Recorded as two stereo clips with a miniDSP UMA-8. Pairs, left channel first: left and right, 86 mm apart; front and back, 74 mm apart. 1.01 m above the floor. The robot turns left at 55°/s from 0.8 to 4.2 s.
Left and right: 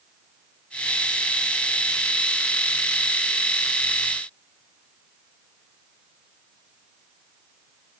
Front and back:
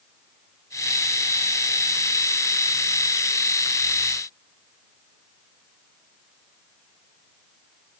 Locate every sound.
Only background noise.